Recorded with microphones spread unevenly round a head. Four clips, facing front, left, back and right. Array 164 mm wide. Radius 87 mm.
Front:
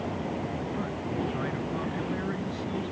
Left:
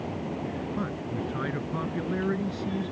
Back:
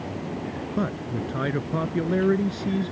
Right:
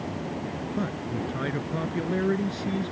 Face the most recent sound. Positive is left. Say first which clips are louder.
# right 2 dB, back 6 dB
turn(degrees=-170)